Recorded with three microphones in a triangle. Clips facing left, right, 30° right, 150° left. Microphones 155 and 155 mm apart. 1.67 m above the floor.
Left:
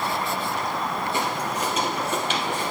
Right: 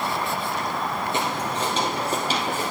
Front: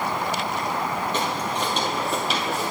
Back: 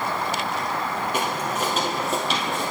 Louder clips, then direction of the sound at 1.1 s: Even, even; 140° right.